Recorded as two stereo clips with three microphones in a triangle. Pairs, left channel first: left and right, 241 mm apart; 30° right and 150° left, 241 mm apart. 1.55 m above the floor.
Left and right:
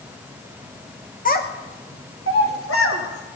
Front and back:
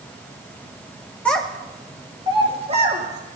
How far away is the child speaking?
About 0.8 m.